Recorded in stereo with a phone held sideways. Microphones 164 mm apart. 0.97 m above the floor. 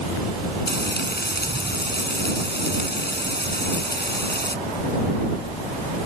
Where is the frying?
85° left.